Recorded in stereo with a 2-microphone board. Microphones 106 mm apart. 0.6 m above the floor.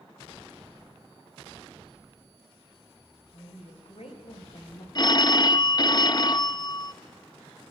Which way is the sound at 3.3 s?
70° left (ahead or behind).